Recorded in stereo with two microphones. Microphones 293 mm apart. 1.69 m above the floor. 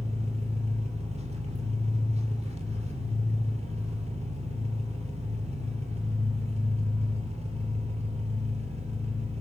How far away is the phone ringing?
I don't hear a phone ringing.